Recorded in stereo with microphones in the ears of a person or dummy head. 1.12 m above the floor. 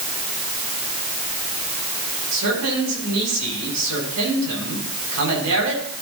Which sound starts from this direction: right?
A man speaking, at 2.3 s.